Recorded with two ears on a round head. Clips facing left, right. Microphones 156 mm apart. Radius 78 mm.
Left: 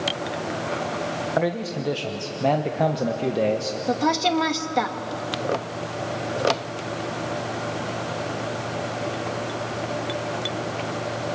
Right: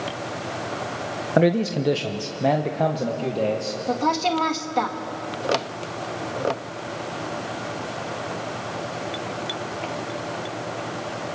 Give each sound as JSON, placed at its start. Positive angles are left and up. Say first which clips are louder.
{"t": 1.4, "sound": "a man speaking", "louder": "right 7 dB", "side_deg": -40, "distance_m": 0.9}
{"t": 3.9, "sound": "a woman speaking", "louder": "left 1 dB", "side_deg": 10, "distance_m": 1.3}